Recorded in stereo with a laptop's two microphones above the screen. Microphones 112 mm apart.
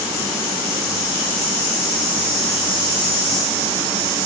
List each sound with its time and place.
Only background noise.